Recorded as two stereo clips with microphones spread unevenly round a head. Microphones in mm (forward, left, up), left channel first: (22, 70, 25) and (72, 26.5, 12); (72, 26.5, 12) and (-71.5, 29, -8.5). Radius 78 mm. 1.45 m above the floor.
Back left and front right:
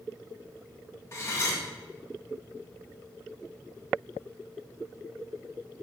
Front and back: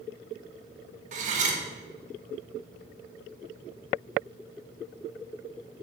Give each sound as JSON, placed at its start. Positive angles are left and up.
{"t": 1.1, "sound": "cutlery clinking", "azimuth_deg": 160, "distance_m": 0.9}